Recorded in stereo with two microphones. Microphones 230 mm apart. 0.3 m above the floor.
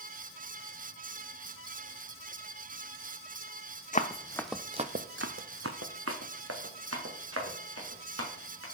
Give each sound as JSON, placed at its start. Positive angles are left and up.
{"t": 3.9, "sound": "running footsteps", "side_deg": 35, "distance_m": 0.8}